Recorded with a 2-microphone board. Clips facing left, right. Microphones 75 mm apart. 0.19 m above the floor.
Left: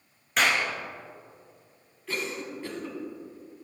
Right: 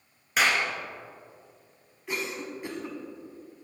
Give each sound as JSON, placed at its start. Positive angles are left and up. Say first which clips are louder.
{"t": 0.4, "sound": "a clap", "louder": "even", "side_deg": -5, "distance_m": 1.7}
{"t": 2.1, "sound": "a cough", "louder": "even", "side_deg": -15, "distance_m": 1.3}